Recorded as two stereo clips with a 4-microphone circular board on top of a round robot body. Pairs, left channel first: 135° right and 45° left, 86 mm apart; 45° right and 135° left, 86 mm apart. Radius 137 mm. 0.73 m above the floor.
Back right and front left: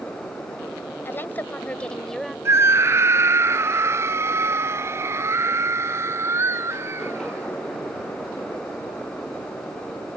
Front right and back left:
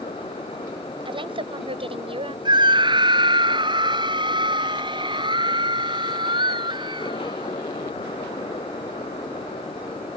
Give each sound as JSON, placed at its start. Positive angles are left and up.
{"t": 1.1, "sound": "a woman speaking", "azimuth_deg": 160}
{"t": 2.5, "sound": "a scream", "azimuth_deg": 105}